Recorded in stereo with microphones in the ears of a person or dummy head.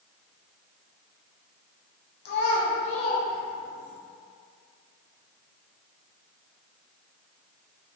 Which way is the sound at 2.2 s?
65° left (ahead or behind).